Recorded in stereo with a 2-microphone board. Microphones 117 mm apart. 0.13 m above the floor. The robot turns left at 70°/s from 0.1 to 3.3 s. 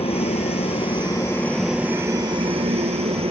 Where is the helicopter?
110° left; by 3.3 s 115° right.